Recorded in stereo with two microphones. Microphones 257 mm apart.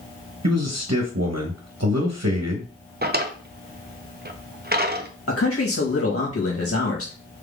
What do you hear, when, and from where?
0.4 s a man speaking: 80° right, 1.1 m
3.0 s a drawer: 40° right (ahead or behind), 0.6 m
5.3 s a man speaking: 60° left (ahead or behind), 1.9 m